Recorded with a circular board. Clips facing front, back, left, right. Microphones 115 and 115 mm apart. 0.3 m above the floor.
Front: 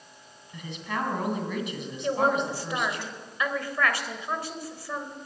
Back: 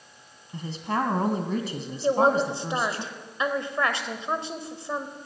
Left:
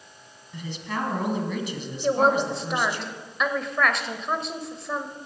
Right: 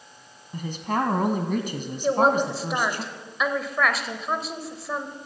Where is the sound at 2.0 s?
175° right, 1.2 m.